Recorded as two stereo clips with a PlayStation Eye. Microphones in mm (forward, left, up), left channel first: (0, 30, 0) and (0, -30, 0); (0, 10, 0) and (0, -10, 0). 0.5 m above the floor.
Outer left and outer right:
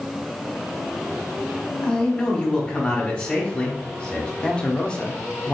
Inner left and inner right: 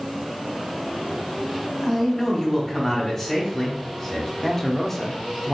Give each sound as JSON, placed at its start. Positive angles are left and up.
{"t": 1.8, "sound": "a man speaking", "side_deg": 25, "distance_m": 1.1}
{"t": 4.4, "sound": "a man speaking", "side_deg": 20, "distance_m": 0.7}